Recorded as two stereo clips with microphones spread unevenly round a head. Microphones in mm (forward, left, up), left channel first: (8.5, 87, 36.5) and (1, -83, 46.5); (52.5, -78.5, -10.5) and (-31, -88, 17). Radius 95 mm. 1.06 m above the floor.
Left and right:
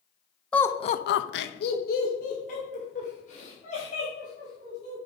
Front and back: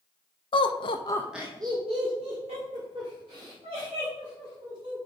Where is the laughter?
5° left, 1.0 m; by 5.0 s 140° left, 6 m.